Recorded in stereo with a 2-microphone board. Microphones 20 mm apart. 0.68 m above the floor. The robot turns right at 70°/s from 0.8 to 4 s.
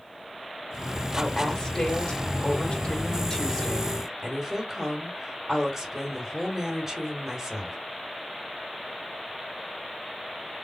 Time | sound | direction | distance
1.2 | a woman speaking | 5° left | 1.9 m